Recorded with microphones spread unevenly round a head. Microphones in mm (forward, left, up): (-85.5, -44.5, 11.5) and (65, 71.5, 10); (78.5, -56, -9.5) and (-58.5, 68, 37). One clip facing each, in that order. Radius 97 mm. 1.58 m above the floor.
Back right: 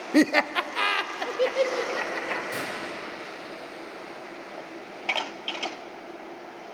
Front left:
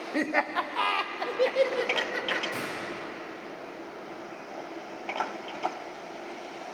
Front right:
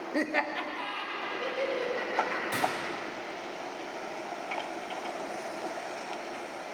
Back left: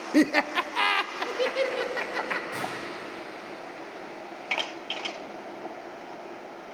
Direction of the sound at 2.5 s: 70° right.